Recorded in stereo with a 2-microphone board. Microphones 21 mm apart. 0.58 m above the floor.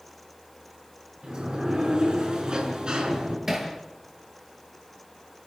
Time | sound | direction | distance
1.2 | a sliding door | 40° right (ahead or behind) | 6 m
3.5 | hammering | 20° right (ahead or behind) | 5.5 m